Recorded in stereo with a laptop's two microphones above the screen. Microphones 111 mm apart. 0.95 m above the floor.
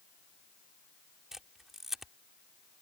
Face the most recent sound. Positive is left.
turn(degrees=-5)  # may be behind; listen again after turning